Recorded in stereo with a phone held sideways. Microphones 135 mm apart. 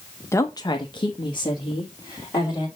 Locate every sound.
0.3 s a woman speaking: 20° left (ahead or behind), 0.7 m; by 2.7 s 30° left (ahead or behind), 2 m